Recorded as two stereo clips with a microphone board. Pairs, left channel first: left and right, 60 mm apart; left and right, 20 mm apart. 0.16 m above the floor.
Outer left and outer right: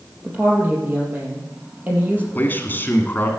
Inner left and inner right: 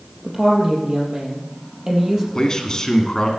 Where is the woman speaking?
30° right (ahead or behind), 3.5 m.